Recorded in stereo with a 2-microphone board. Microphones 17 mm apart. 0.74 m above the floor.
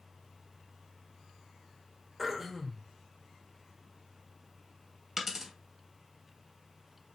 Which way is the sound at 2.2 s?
10° right (ahead or behind).